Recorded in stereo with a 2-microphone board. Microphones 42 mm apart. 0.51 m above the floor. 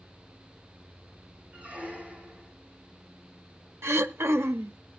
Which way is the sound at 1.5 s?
30° right (ahead or behind).